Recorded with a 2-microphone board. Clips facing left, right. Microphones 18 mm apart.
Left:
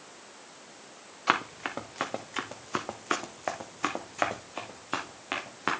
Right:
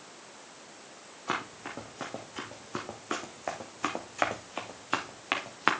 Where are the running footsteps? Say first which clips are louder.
Left 7 dB; 75° left (ahead or behind), 1.5 m; by 5.7 s 25° right (ahead or behind), 1.6 m.